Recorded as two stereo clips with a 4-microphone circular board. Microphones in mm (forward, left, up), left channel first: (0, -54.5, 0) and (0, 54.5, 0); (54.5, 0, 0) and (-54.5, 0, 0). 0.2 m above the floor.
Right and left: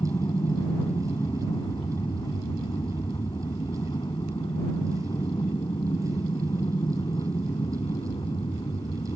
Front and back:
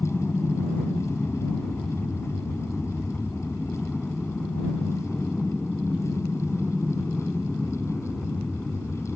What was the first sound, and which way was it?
An aircraft, 75° right.